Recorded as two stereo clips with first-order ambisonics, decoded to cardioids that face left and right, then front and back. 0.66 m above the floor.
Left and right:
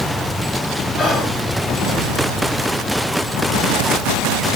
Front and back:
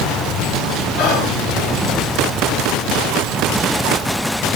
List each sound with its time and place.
1.0 s whispering: 10° left, 2 m